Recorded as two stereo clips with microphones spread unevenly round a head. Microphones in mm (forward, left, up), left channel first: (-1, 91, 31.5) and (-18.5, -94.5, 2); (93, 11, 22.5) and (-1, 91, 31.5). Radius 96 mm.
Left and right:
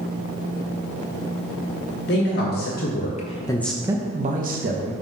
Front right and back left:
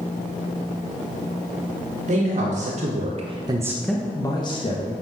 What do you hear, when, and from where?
2.1 s a man speaking: 120° left, 2 m; by 4.9 s 80° right, 1.7 m